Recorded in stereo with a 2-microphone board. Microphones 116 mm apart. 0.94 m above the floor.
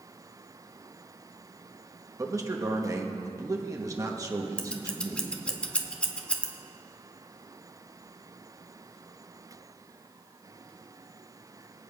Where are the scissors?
10° left (ahead or behind), 0.9 m.